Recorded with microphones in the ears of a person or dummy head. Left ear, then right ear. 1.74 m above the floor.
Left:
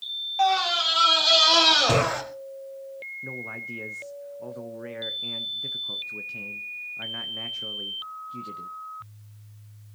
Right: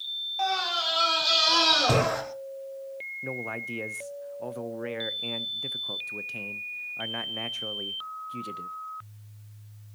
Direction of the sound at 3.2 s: 15° right (ahead or behind).